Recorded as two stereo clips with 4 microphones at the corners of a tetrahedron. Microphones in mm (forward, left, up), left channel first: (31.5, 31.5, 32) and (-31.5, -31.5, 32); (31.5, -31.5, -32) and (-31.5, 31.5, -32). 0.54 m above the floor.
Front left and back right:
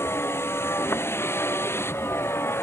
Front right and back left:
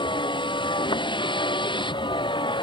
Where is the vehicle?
20° right.